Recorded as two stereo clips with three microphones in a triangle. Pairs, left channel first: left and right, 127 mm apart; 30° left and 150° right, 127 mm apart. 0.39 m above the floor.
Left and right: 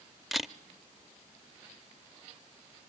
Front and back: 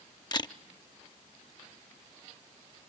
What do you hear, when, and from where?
0.3 s a camera shutter: straight ahead, 0.8 m